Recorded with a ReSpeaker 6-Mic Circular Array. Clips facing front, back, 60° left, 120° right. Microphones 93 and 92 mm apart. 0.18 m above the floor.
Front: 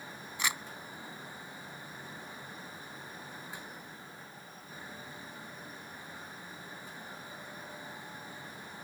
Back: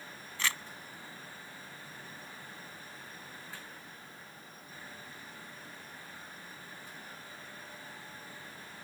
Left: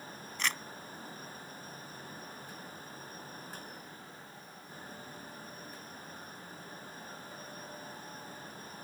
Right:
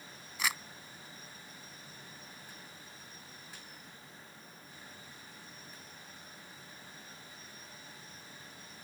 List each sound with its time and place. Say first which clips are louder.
0.4 s crumpling: even, even; 45° right